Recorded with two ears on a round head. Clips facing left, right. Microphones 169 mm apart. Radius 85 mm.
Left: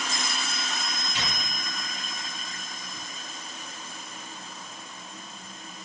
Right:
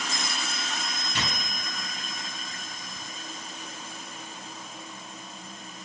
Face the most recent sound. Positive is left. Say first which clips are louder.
# right 1 dB
turn(degrees=-60)  # may be behind; listen again after turning